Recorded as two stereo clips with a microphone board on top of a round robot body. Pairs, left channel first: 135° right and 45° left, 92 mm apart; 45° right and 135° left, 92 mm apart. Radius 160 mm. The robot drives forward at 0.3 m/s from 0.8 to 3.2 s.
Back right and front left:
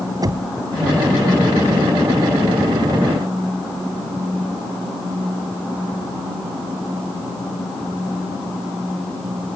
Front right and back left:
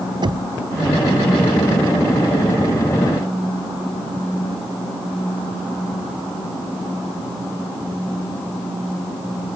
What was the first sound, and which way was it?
Knocking, 95° left.